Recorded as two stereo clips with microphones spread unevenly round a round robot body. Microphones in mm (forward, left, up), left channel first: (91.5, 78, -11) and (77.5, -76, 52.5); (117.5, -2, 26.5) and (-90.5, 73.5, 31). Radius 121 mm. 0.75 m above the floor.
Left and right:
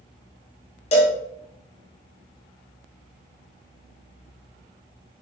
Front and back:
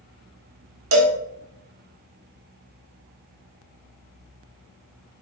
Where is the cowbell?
140° left, 1.5 m.